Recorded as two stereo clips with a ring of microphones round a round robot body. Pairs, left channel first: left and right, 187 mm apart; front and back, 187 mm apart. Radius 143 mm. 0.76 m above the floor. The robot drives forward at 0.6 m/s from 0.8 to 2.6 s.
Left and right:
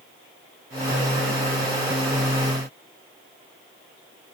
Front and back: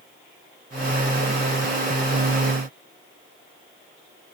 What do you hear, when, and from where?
Only background noise.